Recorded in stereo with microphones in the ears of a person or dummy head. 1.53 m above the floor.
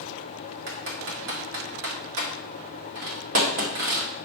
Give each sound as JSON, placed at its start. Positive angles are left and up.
{"t": 0.7, "sound": "typing on a keyboard", "side_deg": -70, "distance_m": 2.5}